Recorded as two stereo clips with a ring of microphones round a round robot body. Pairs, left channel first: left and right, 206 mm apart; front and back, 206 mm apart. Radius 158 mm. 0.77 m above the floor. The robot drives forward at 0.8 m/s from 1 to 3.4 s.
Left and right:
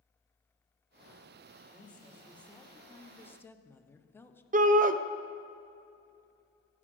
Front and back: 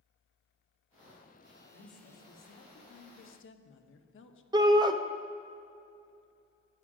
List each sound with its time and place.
1.7 s a woman speaking: 5° left, 2.5 m; by 4.4 s 10° left, 1.3 m
4.5 s a shout: 120° right, 0.5 m